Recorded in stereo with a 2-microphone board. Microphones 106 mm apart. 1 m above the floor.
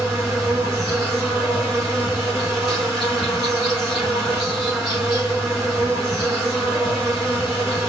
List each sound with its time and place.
0.0 s an insect: centre (ahead or behind), 4.5 m